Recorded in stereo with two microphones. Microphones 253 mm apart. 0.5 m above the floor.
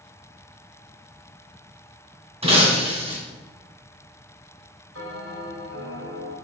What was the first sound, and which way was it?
Breaking glass, 25° right (ahead or behind).